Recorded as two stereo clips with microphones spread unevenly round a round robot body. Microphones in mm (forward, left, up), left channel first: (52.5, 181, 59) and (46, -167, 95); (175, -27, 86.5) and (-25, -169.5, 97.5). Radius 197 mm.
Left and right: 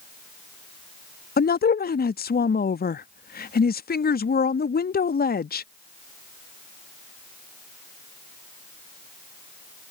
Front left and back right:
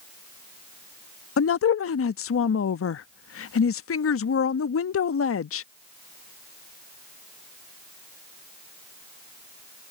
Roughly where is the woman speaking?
Ahead left.